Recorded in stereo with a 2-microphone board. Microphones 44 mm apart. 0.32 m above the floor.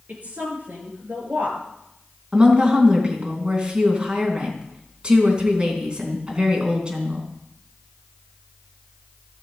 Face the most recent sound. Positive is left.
turn(degrees=-25)  # may be behind; listen again after turning